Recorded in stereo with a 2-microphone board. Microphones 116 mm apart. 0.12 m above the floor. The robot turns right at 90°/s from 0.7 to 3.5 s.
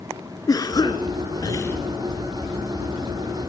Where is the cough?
55° left, 2 m; by 1.8 s 155° left, 2 m.